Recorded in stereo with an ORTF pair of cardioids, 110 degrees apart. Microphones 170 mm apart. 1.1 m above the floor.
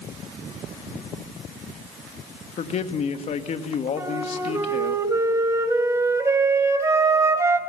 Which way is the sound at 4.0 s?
20° right.